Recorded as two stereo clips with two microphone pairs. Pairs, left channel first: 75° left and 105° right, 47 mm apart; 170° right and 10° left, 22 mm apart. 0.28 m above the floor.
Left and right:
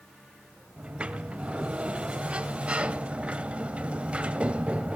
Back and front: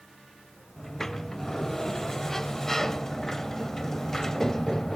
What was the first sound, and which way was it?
A sliding door, 130° right.